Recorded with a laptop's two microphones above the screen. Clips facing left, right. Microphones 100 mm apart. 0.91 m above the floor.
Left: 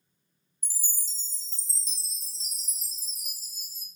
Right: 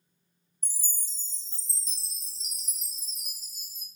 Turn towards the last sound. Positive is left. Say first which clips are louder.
# left 2 dB
turn(degrees=-55)  # may be behind; listen again after turning